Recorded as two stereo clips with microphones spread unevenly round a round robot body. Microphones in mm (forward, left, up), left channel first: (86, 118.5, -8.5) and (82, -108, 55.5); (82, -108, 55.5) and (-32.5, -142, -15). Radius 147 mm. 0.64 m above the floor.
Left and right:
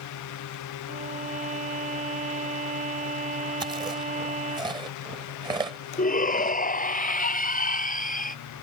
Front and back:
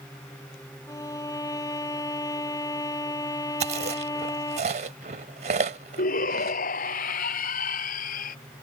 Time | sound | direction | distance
0.9 | a violin | 35° right | ?
3.6 | chewing | 170° right | ?
6.0 | a shout | 35° left | ?